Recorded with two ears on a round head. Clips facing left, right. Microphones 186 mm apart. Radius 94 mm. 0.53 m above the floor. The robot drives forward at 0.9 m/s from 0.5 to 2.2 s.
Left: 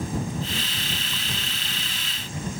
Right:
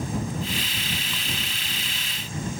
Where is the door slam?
No door slam in this recording.